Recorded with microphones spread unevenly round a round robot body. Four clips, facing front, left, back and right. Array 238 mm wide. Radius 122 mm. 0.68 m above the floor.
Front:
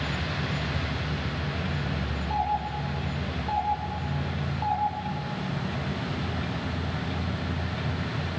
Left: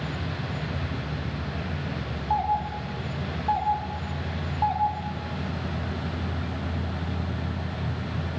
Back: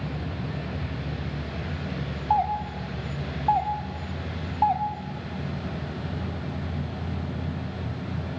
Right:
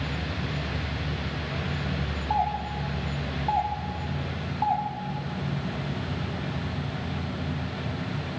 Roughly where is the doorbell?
Behind.